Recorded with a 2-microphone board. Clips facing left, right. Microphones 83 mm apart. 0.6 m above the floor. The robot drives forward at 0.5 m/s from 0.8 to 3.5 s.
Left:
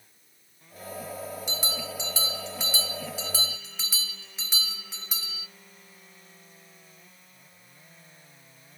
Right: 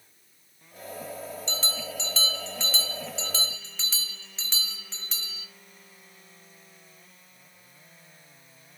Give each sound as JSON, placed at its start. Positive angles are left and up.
{"t": 1.5, "sound": "a bell", "side_deg": 15, "distance_m": 1.0}